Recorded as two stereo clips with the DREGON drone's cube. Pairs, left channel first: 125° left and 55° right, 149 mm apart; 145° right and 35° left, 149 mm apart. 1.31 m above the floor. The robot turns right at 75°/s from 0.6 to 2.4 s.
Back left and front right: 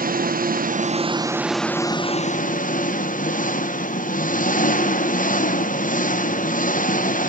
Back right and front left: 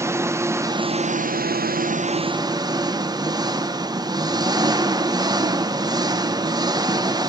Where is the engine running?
40° right, 0.9 m; by 7.3 s 95° left, 0.9 m.